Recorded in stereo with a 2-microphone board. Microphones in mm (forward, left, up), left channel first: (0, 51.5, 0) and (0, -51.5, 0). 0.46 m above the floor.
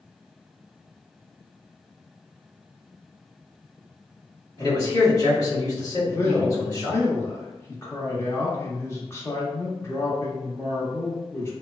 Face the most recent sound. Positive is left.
turn(degrees=25)  # may be behind; listen again after turning